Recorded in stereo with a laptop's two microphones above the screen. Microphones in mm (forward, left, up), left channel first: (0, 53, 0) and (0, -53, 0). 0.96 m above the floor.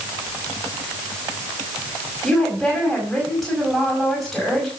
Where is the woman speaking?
5° left (ahead or behind), 5.5 m.